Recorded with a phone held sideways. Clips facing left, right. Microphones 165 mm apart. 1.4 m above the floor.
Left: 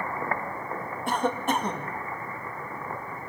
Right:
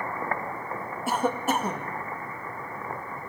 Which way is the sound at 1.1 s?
5° right (ahead or behind).